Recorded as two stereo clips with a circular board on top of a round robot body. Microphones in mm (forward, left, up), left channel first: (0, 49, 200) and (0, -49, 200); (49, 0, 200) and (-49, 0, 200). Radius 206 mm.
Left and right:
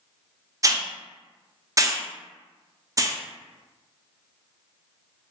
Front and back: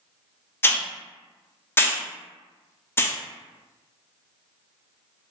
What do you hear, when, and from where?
0.6 s a hiss: 55° right, 0.6 m